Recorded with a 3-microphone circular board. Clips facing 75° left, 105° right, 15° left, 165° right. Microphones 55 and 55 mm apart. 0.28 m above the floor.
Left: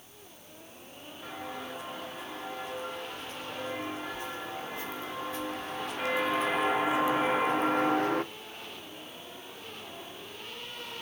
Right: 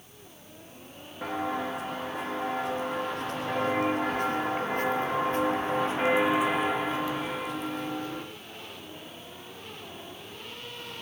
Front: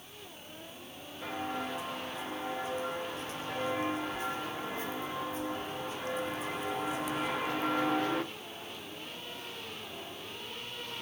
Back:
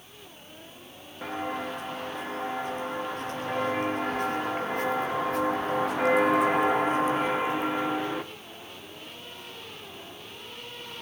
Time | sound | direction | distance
1.2 | footsteps | 125° right | 4.5 m